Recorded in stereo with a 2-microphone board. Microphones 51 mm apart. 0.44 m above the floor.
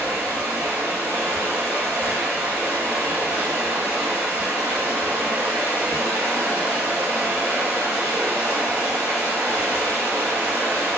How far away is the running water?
About 1.1 m.